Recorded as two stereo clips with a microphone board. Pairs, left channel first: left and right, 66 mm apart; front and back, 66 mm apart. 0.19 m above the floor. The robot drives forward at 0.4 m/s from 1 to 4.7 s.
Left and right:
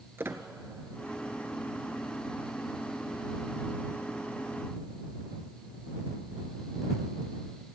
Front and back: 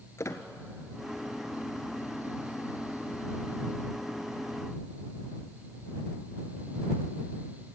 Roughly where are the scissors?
I don't hear scissors.